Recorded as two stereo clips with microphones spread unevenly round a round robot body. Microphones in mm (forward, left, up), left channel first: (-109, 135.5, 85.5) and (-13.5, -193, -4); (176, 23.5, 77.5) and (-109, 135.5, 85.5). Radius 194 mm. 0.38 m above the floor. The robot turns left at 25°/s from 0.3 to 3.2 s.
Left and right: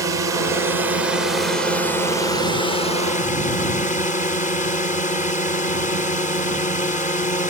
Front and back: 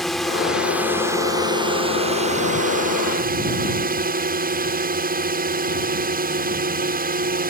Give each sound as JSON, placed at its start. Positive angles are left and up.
{"t": 0.0, "sound": "a drone", "azimuth_deg": -105}